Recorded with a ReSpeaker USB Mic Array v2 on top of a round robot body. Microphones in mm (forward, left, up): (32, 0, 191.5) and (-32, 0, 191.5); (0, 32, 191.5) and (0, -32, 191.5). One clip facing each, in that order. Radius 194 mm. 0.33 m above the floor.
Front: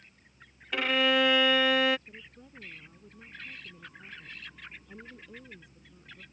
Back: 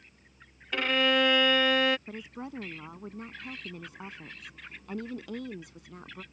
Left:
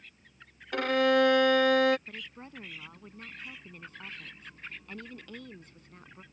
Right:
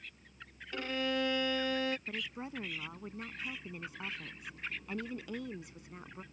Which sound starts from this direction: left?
A violin, at 0.7 s.